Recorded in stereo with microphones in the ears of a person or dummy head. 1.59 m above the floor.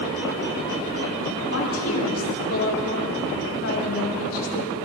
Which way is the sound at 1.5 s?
85° left.